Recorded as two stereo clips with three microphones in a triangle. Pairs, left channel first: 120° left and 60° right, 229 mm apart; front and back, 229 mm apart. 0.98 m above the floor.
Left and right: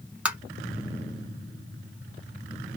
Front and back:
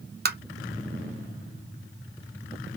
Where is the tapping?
145° right, 0.7 m.